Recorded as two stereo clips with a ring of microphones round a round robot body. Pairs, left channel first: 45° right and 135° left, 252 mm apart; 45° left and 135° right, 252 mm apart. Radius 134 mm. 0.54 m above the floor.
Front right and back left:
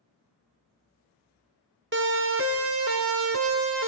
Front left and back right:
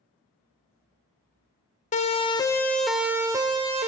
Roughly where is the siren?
Left.